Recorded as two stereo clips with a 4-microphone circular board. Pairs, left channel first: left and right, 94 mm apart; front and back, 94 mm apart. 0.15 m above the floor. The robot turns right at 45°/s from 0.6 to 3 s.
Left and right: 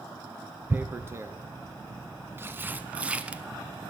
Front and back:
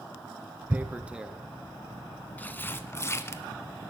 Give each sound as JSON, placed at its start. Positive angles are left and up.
{"t": 0.7, "sound": "tearing paper", "azimuth_deg": -135, "distance_m": 0.6}